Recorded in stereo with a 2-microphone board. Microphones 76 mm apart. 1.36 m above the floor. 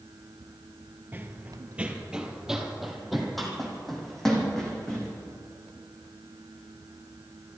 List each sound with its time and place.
1.1 s running footsteps: 25° right (ahead or behind), 1.4 m; by 5.1 s 10° left (ahead or behind), 4.5 m